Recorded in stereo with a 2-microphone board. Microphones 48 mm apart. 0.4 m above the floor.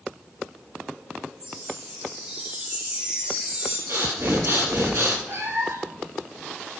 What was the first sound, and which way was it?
A chime, 30° right (ahead or behind).